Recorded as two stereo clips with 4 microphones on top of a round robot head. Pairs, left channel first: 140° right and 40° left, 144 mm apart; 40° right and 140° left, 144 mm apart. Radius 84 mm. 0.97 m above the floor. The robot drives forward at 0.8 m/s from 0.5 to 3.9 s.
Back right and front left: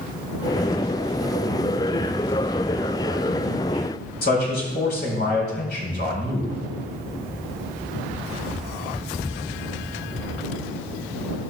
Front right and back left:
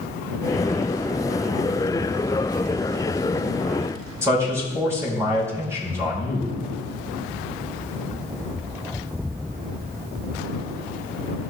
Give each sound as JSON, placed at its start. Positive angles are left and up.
{"t": 4.2, "sound": "a man speaking", "azimuth_deg": -150, "distance_m": 4.0}